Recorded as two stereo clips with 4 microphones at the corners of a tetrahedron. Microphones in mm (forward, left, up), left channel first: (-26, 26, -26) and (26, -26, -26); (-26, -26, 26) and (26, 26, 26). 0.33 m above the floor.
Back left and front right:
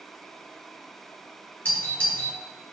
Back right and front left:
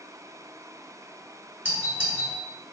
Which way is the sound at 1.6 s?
95° left.